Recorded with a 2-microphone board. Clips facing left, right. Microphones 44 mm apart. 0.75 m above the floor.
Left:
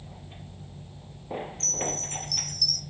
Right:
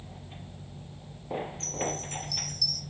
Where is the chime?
60° left (ahead or behind), 0.7 m.